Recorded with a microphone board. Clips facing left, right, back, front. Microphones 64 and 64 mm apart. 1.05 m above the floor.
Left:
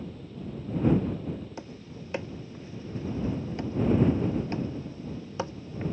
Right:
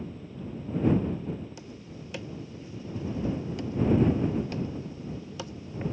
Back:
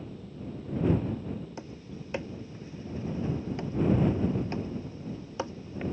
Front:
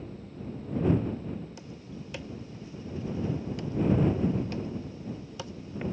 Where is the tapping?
135° left.